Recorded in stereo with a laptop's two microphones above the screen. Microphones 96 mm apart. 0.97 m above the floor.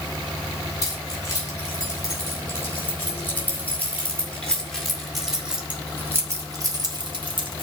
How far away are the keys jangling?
About 4.5 m.